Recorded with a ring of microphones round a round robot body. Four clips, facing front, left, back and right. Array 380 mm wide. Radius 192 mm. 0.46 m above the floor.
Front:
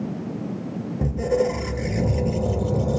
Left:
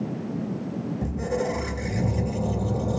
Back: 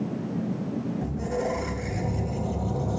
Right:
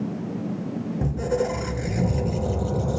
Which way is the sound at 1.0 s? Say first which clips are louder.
Right 3 dB, front 11 dB; 25° right.